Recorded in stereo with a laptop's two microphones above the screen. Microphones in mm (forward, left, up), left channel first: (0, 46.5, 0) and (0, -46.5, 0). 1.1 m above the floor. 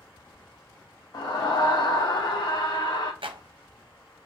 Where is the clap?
70° right (ahead or behind), 0.6 m.